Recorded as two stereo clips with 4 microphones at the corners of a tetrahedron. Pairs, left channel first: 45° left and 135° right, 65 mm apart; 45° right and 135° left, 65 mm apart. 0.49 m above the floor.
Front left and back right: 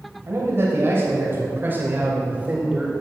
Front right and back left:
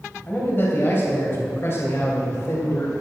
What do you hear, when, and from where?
0.3 s a man speaking: 95° right, 3 m; by 2.9 s 70° right, 2 m